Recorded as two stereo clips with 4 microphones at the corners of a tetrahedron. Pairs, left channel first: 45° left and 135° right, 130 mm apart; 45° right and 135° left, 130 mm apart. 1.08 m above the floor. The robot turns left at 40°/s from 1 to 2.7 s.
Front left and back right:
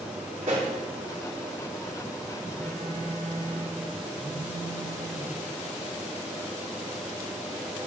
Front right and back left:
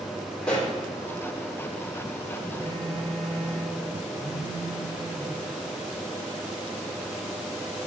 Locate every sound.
0.4 s a pop: 130° right, 2 m
2.6 s a phone buzzing: 115° left, 1.2 m; by 3.8 s 110° left, 1.2 m
4.2 s a phone buzzing: 10° right, 3.5 m